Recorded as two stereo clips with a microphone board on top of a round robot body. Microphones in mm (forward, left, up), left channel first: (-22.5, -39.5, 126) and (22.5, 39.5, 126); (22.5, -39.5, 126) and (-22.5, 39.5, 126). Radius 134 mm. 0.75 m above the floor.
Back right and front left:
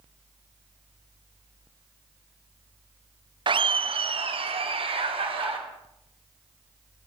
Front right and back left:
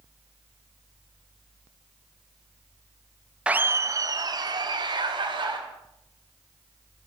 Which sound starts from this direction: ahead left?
Laughter, at 3.5 s.